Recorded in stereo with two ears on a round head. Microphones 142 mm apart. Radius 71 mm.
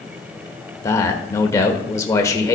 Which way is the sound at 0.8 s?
20° left (ahead or behind).